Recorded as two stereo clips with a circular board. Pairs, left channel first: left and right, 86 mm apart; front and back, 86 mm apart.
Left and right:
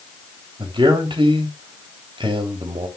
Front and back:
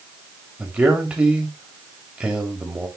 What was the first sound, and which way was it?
A man speaking, 105° right.